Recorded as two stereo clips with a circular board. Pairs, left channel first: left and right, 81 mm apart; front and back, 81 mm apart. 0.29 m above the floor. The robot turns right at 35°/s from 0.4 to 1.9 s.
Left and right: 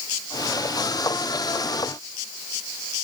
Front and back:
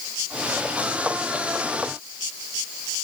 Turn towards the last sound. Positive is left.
No sound to turn to.